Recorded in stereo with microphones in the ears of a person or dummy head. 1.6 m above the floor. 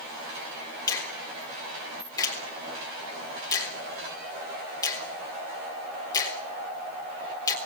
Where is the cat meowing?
I don't hear a cat meowing.